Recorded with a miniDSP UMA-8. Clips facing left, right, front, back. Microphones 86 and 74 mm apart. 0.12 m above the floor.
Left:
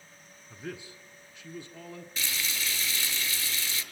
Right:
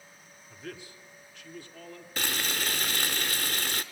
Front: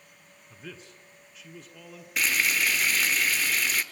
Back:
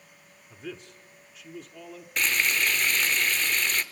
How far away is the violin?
I don't hear a violin.